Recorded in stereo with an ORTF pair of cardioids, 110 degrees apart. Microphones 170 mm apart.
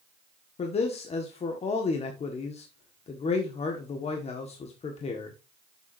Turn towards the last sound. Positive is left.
turn(degrees=40)